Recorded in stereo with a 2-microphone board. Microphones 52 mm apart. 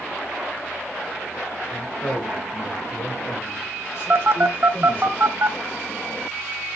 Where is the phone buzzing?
50° right (ahead or behind), 0.8 m.